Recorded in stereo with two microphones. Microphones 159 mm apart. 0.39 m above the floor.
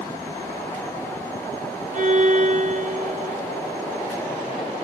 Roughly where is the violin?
Right.